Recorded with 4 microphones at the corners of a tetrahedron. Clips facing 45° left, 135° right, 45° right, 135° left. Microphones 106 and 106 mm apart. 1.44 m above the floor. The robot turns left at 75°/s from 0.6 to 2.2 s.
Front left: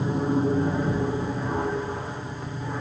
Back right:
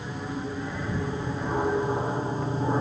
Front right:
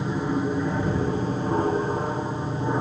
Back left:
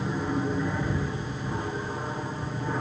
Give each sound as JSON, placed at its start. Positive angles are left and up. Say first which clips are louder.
{"t": 0.0, "sound": "an aircraft", "louder": "front left 9 dB, front right 3 dB", "azimuth_deg": 25}